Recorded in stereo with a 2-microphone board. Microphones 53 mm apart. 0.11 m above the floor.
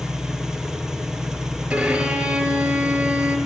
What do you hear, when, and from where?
0.0 s an engine running: 10° right (ahead or behind), 1.0 m
1.7 s a violin: 25° right (ahead or behind), 2.5 m